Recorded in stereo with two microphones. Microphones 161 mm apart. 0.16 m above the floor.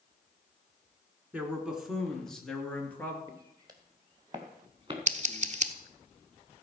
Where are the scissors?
50° right (ahead or behind), 0.9 m.